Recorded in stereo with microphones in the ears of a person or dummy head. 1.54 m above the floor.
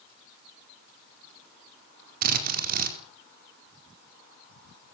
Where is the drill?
45° right (ahead or behind), 4.5 m.